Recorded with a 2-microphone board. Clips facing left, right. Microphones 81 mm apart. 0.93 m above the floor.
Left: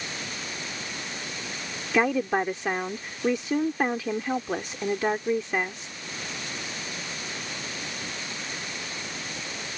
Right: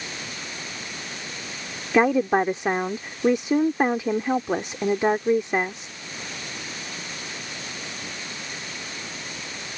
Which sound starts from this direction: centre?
A woman speaking, at 1.9 s.